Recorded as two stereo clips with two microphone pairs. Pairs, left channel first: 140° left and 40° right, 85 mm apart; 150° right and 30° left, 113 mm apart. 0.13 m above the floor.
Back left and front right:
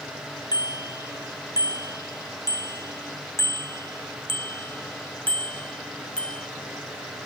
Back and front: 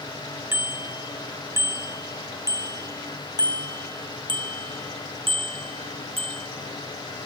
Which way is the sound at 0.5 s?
100° left.